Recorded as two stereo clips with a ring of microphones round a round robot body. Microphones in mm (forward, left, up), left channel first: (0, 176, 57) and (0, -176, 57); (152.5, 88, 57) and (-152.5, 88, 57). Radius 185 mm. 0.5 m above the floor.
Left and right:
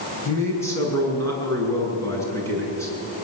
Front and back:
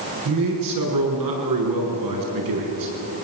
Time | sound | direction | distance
0.2 | a man speaking | 170° left | 7 m